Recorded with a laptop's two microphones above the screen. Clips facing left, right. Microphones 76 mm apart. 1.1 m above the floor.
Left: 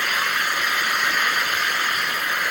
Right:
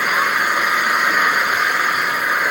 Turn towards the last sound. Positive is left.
turn(degrees=-35)  # may be behind; listen again after turning